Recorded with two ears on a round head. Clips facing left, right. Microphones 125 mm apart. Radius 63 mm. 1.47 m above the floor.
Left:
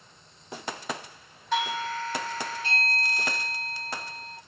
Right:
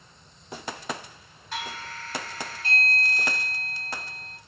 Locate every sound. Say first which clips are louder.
1.5 s a doorbell: left 8 dB; 70° left (ahead or behind), 1.3 m